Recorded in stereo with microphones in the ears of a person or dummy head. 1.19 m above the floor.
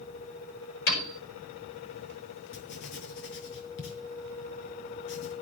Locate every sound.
0.9 s a piano: 65° left (ahead or behind), 7 m
2.5 s writing: 70° left (ahead or behind), 5 m